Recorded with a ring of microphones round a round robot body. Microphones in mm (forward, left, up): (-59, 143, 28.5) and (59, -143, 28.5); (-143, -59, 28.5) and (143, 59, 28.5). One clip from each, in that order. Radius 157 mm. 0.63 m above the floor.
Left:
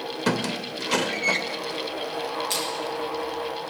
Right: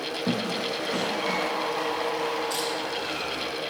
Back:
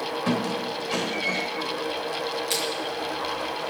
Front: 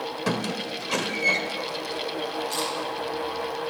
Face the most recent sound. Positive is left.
turn(degrees=165)